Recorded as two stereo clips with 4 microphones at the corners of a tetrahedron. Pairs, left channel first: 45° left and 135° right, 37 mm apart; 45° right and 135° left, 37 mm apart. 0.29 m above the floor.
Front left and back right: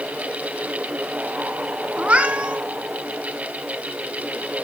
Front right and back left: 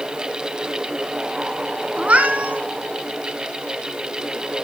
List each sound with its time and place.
2.0 s a cat meowing: straight behind, 1.7 m